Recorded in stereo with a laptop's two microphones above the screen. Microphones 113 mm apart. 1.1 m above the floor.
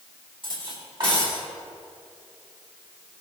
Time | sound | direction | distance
0.4 | cutlery clinking | 45° right (ahead or behind) | 2 m